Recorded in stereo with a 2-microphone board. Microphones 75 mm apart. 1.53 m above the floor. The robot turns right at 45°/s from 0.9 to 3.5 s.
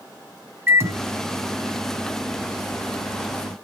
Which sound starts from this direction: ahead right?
A microwave, at 0.7 s.